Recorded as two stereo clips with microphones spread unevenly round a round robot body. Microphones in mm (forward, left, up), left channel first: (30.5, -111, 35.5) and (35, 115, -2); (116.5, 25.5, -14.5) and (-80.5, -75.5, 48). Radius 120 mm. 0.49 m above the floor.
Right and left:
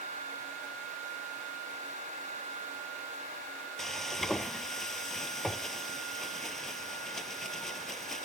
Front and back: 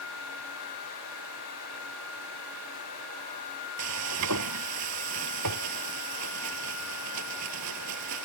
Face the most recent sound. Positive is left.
turn(degrees=180)